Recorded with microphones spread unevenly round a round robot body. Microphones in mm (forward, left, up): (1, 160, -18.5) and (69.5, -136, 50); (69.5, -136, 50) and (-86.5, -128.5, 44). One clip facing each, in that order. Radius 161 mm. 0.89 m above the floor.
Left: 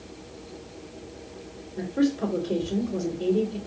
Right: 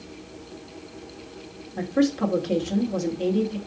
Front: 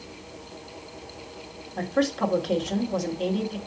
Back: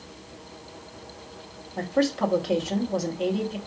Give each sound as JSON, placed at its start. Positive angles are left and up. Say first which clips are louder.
{"t": 1.8, "sound": "a woman speaking", "louder": "right 2 dB, back 1 dB", "azimuth_deg": -100, "distance_m": 2.0}